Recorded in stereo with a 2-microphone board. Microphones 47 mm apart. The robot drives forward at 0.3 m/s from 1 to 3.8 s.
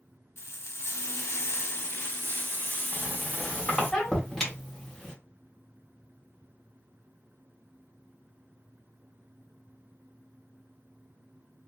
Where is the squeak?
10° left (ahead or behind), 1.1 m; by 5.1 s 5° left (ahead or behind), 1.3 m.